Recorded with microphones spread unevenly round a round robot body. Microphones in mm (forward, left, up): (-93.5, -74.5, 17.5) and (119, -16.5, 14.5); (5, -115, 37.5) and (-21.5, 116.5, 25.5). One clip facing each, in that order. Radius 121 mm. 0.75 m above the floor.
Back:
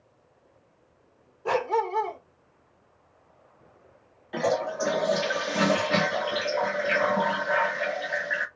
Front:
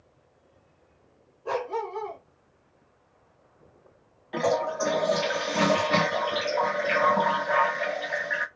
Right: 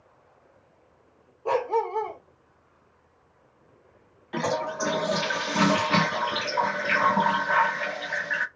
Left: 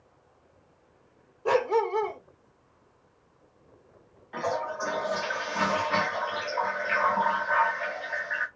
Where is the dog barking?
165° left, 0.7 m.